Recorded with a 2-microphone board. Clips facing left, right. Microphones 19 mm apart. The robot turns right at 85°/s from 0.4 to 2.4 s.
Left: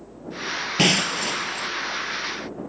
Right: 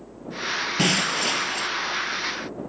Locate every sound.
0.8 s breaking glass: 160° left; by 1.7 s 125° right